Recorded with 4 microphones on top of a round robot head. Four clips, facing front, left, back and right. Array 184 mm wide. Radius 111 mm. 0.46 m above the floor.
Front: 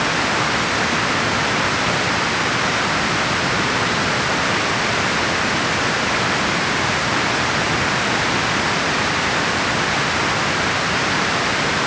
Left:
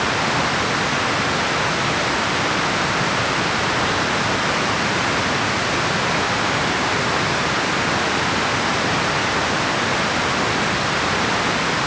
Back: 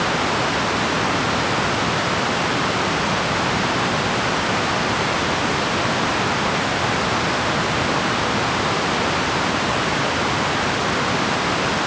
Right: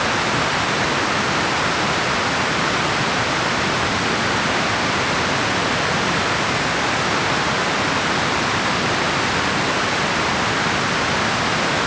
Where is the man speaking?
No man speaking in this recording.